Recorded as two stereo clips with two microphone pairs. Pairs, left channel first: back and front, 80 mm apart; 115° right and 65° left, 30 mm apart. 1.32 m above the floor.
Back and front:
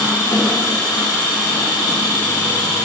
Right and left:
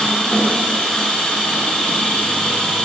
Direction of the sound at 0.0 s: 170° right.